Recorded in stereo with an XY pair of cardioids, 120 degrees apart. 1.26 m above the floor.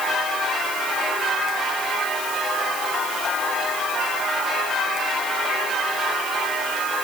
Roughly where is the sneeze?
No sneeze in this recording.